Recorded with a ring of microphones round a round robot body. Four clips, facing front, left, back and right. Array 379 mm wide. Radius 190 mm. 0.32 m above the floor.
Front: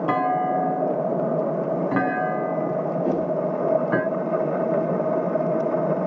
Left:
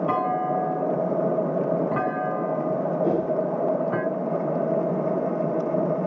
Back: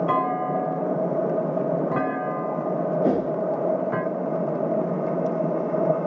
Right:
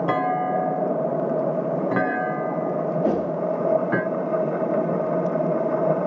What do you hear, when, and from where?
0.1 s a clunk: 50° right, 0.8 m
3.0 s a whoosh: 140° right, 0.5 m